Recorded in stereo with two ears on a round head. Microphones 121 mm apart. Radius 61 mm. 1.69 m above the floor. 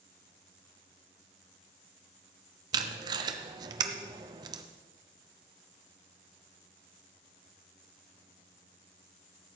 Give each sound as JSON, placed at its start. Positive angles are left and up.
{"t": 2.7, "sound": "tape being pulled", "side_deg": -30, "distance_m": 0.6}